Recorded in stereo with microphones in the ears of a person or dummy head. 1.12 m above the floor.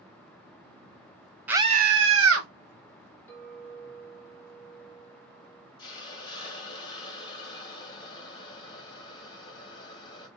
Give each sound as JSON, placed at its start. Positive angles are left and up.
{"t": 1.5, "sound": "a scream", "side_deg": -10, "distance_m": 0.6}
{"t": 3.3, "sound": "a clink", "side_deg": 15, "distance_m": 3.0}
{"t": 5.8, "sound": "a hiss", "side_deg": 30, "distance_m": 1.2}